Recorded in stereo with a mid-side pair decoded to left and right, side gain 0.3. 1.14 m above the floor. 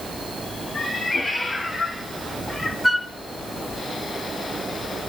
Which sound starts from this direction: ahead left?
A cat meowing, at 0.7 s.